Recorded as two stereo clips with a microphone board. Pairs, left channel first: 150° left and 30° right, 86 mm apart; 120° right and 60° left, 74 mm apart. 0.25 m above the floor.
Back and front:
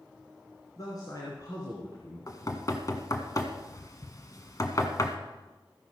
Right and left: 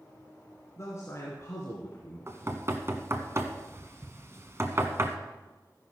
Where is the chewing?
No chewing in this recording.